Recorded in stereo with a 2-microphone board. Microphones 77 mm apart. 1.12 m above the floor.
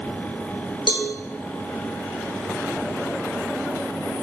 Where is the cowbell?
75° left (ahead or behind), 0.6 m.